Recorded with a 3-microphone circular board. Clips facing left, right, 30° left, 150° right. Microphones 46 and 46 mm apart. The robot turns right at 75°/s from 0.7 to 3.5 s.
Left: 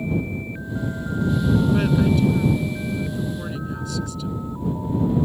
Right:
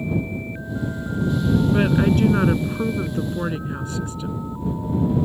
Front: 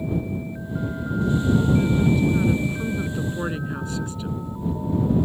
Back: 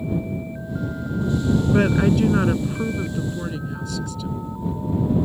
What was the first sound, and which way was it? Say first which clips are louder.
A woman speaking: right 1 dB, back 2 dB; 165° right.